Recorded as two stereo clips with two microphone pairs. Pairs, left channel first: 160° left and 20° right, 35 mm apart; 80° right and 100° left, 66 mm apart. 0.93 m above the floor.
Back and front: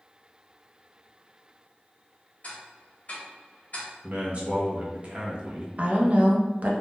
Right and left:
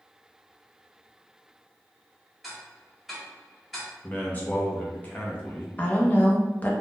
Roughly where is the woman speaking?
Ahead.